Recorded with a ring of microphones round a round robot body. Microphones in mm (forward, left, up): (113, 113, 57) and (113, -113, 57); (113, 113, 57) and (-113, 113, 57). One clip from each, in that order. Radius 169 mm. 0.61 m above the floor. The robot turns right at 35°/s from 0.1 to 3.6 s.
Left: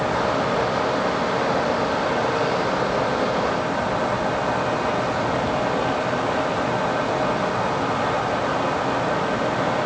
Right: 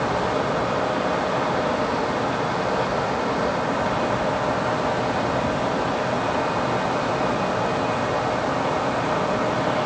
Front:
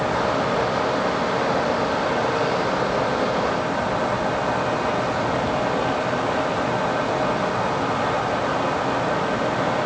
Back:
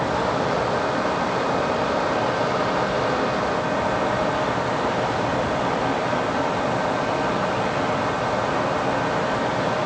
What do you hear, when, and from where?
Only background noise.